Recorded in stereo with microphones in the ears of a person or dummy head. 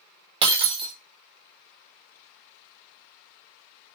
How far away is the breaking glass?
About 1.4 m.